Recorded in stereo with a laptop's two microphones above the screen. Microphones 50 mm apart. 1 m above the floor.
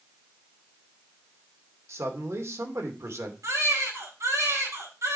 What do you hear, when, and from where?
1.9 s a man speaking: 70° right (ahead or behind), 2.5 m
3.4 s a baby crying: 85° right, 3.5 m